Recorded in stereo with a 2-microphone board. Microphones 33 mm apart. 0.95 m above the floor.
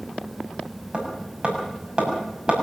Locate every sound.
0.9 s hammering: 30° right (ahead or behind), 6.5 m